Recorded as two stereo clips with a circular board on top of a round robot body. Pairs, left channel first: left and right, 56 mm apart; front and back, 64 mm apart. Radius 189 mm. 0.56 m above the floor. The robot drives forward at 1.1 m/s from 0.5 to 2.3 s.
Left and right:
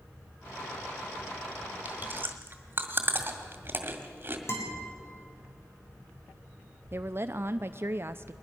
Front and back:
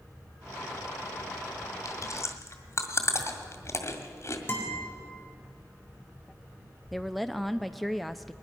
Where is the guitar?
55° left, 4 m.